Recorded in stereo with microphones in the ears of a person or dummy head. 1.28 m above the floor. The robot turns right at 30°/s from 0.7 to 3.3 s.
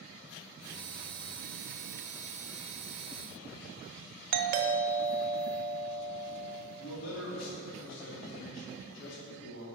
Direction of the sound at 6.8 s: 75° left (ahead or behind).